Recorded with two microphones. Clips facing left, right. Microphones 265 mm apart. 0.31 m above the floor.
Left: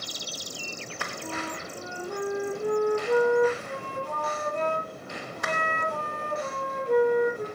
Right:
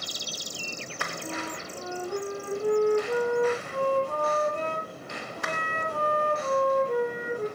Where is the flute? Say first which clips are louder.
Left 1 dB; 20° left (ahead or behind), 6.5 m.